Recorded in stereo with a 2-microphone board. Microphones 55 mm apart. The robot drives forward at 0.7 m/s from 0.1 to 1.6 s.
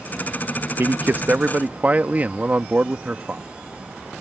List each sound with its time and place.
0.8 s a man speaking: 50° right (ahead or behind); by 3.4 s 35° right (ahead or behind)